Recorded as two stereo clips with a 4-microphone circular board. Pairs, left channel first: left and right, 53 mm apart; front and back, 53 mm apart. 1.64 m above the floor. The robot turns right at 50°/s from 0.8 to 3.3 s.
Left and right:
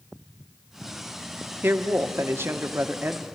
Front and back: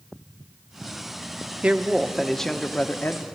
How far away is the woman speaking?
About 0.9 m.